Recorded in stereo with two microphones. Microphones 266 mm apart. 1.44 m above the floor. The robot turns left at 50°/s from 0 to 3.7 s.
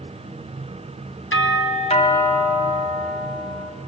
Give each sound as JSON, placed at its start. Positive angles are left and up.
{"t": 1.3, "sound": "a doorbell", "azimuth_deg": 55, "distance_m": 1.7}